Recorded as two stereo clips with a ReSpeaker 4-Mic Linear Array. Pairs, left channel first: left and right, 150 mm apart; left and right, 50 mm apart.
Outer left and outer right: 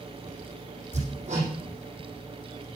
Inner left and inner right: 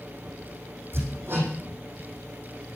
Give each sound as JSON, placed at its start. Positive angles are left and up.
{"t": 0.9, "sound": "hammering", "side_deg": -50, "distance_m": 5.5}